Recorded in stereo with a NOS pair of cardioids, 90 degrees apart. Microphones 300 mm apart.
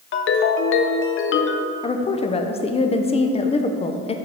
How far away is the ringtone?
About 0.5 m.